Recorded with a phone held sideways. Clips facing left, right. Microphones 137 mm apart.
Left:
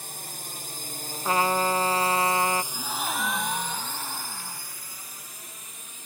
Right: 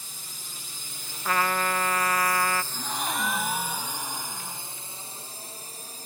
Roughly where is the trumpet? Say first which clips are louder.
Left 3 dB; left.